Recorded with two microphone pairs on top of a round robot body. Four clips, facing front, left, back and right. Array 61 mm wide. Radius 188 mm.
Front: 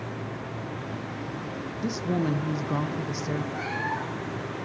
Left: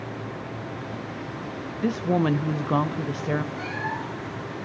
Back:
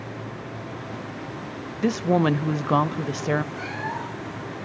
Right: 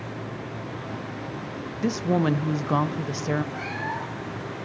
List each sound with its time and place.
1.8 s a woman speaking: 170° right, 0.8 m
3.5 s a cat meowing: 30° right, 5.5 m